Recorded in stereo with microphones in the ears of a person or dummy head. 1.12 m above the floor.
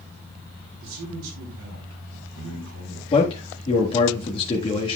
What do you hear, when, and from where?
0.8 s a man speaking: 80° right, 4 m
3.1 s a man speaking: 35° left (ahead or behind), 1.6 m